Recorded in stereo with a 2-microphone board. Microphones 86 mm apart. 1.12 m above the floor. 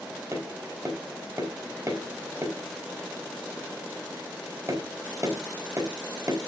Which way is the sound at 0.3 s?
35° right (ahead or behind).